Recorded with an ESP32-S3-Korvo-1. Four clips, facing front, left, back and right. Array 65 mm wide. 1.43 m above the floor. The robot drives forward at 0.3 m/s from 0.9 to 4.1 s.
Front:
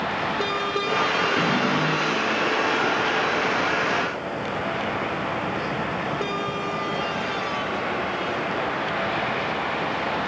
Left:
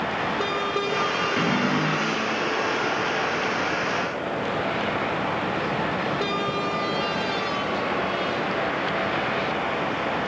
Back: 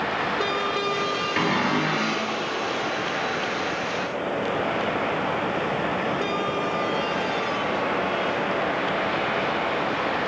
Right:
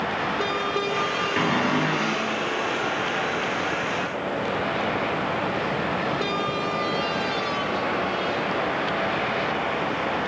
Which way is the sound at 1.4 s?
130° right.